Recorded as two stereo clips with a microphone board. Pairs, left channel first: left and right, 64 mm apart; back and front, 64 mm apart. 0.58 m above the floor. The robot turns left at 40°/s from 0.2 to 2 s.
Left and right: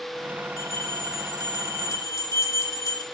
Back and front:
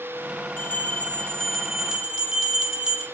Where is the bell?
140° left, 0.6 m; by 3.0 s 80° left, 0.6 m.